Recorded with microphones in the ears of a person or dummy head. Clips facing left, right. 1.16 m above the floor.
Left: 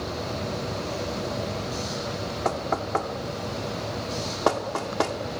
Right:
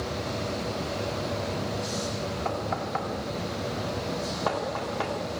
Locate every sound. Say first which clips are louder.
2.5 s knocking: left 6 dB; 60° left (ahead or behind), 2.5 m